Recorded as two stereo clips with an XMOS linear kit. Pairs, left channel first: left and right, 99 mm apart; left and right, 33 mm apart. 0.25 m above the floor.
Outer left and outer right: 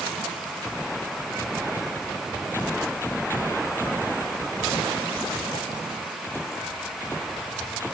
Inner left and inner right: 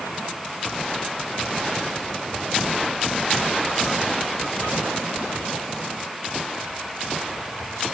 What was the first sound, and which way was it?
Only background noise.